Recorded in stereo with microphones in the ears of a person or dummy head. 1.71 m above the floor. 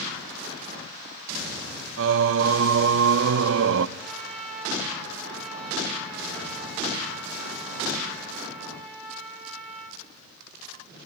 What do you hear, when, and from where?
2.0 s singing: 65° right (ahead or behind), 0.7 m
4.0 s a trumpet: centre (ahead or behind), 5 m